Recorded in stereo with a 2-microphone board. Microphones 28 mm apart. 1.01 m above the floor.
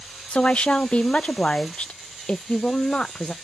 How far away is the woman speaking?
About 0.5 m.